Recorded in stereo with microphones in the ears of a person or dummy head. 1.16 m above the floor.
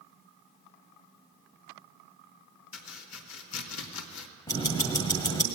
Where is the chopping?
80° left, 2 m.